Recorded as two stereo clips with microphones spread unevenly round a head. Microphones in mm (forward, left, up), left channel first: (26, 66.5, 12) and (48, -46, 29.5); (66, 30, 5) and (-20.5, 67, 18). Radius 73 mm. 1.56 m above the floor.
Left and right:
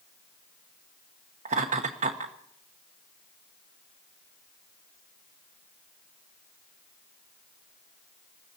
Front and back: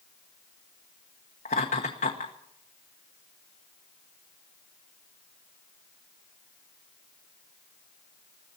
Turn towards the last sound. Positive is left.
turn(degrees=-55)